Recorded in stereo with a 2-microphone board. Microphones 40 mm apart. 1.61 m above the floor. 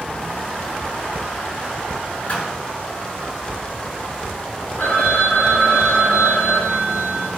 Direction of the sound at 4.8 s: 50° left (ahead or behind).